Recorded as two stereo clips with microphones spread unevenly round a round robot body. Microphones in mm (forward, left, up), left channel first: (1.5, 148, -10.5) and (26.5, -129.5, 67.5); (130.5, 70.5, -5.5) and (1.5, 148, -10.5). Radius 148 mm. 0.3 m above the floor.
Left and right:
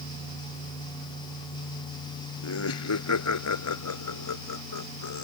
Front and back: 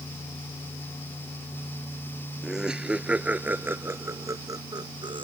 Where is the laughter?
60° left; by 5.2 s 95° left.